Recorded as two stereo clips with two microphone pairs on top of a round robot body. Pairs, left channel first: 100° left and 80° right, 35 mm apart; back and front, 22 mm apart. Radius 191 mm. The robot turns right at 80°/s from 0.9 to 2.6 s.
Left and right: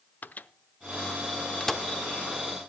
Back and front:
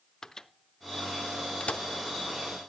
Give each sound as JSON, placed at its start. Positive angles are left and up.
{"t": 0.2, "sound": "a microwave", "azimuth_deg": 110, "distance_m": 0.9}